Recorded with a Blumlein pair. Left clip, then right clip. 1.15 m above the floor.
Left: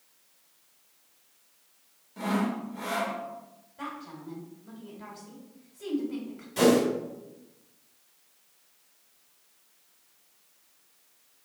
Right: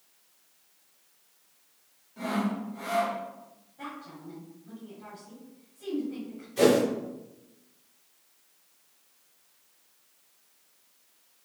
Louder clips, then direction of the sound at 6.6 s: Even; 60° left.